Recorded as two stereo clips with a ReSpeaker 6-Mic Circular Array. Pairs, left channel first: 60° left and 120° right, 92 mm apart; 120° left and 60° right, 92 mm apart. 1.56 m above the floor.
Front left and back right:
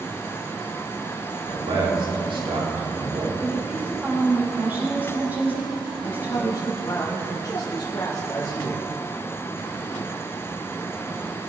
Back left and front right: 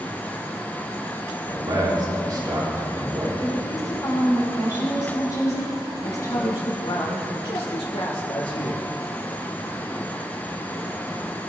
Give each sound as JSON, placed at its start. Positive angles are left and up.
{"t": 1.4, "sound": "a man speaking", "azimuth_deg": -105, "distance_m": 4.0}
{"t": 3.4, "sound": "a woman speaking", "azimuth_deg": 170, "distance_m": 6.0}
{"t": 6.0, "sound": "a man speaking", "azimuth_deg": 110, "distance_m": 2.0}